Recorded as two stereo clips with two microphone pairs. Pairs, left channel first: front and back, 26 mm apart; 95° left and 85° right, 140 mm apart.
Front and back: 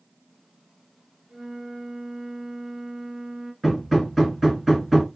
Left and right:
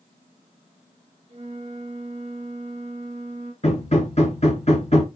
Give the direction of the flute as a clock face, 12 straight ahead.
4 o'clock.